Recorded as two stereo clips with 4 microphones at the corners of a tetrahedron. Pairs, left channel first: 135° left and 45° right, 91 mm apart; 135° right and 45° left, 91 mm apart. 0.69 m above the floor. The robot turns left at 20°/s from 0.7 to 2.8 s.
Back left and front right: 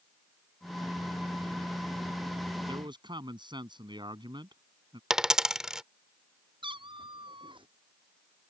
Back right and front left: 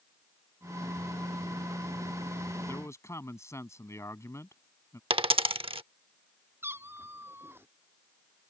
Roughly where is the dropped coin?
Ahead left.